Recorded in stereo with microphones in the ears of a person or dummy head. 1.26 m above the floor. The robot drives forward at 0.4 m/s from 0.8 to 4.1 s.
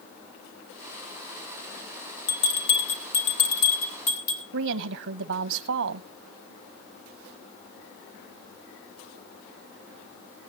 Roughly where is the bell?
Left.